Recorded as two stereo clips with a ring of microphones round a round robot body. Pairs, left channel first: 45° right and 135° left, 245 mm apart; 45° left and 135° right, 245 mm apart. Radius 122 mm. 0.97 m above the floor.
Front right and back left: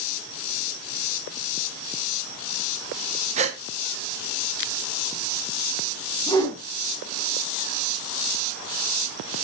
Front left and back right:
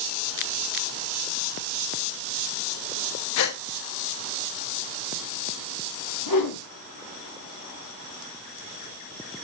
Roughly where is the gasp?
Left.